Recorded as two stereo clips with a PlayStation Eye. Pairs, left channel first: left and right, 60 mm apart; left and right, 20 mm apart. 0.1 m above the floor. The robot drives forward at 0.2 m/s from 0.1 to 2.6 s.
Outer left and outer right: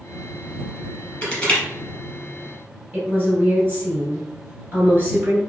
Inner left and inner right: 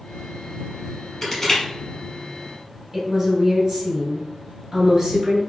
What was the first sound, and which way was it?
Crushing, 15° left (ahead or behind).